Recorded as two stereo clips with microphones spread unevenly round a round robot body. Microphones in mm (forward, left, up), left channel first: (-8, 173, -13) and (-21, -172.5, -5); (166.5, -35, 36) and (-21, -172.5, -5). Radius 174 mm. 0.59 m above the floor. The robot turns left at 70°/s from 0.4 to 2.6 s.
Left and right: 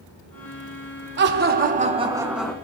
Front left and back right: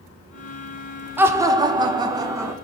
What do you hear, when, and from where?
1.2 s laughter: 95° right, 0.8 m; by 2.5 s 170° left, 0.8 m